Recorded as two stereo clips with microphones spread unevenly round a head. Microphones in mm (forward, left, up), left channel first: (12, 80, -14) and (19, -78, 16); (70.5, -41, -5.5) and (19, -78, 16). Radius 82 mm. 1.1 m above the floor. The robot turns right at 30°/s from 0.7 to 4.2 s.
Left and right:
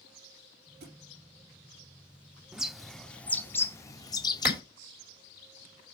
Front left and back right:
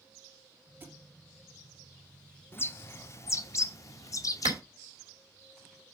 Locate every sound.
0.8 s a thud: 100° right, 3 m; by 1.0 s 95° right, 3 m
2.5 s a bird: 20° right, 0.7 m; by 4.6 s 30° left, 0.7 m
4.5 s a clap: 170° right, 2.5 m